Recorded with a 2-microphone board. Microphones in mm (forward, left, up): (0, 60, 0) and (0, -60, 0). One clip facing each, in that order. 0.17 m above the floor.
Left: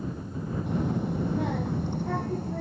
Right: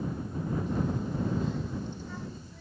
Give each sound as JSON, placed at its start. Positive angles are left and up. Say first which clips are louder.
{"t": 0.7, "sound": "a child speaking", "louder": "left 3 dB", "side_deg": 75}